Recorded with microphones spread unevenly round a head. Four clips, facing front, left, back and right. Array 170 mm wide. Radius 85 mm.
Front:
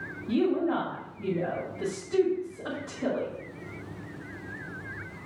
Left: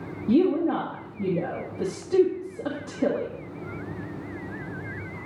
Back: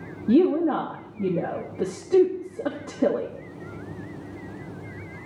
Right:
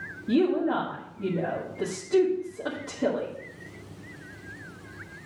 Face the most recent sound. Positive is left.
turn(degrees=165)